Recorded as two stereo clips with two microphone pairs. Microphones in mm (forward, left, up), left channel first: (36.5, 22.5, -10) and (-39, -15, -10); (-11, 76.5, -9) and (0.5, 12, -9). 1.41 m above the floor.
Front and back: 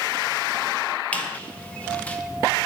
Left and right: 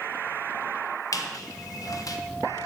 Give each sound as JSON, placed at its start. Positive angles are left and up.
{"t": 1.1, "sound": "a squeak", "azimuth_deg": 95, "distance_m": 0.5}